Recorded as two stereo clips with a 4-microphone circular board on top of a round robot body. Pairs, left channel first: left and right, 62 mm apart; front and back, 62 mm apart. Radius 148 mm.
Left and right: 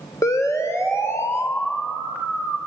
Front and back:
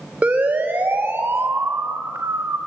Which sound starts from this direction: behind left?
A siren, at 0.2 s.